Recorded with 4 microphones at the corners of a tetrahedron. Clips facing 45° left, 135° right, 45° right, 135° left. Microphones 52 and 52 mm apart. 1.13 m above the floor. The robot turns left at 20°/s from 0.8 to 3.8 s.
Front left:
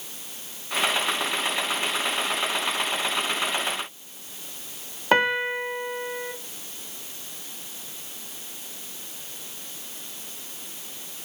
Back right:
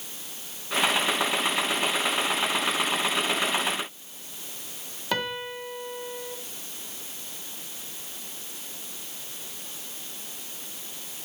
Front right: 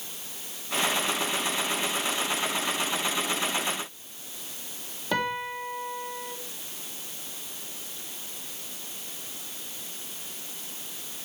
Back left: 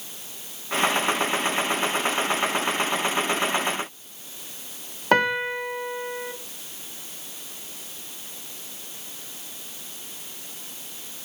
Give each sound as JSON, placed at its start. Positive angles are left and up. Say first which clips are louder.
{"t": 5.1, "sound": "a piano", "louder": "front left 9 dB, back left 8 dB", "azimuth_deg": 100, "distance_m": 0.7}